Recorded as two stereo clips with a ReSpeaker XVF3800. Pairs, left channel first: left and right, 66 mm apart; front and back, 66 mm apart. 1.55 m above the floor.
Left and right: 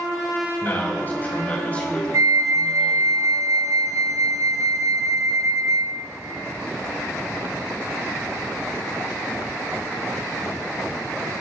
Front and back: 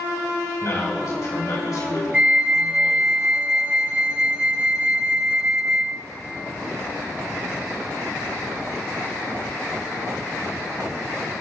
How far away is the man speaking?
About 3.5 m.